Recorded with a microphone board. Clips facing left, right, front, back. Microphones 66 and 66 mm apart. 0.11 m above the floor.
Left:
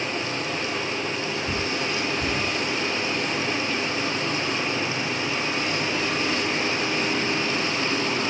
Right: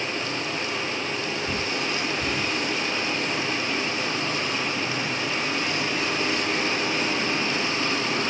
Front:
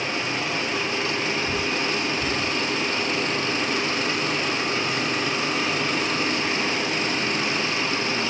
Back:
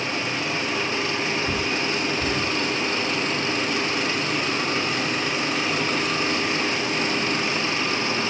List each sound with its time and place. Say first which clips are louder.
1.5 s a bird: left 1 dB, even; 155° left, 7 m